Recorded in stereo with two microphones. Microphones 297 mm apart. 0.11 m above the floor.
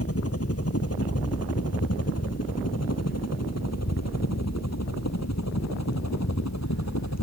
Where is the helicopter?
50° left (ahead or behind); by 7.2 s 65° left (ahead or behind).